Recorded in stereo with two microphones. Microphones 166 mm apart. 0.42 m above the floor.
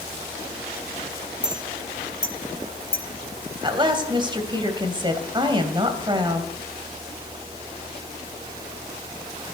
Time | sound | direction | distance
1.4 | a clink | 55° left (ahead or behind) | 4 m
3.6 | a woman speaking | 30° right (ahead or behind) | 2.5 m